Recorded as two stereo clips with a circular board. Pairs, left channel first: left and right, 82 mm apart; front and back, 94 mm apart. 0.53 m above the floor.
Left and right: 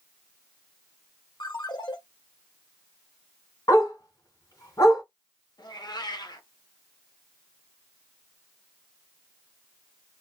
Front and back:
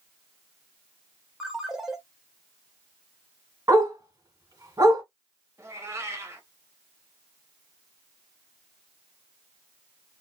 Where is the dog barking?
130° left, 2.5 m.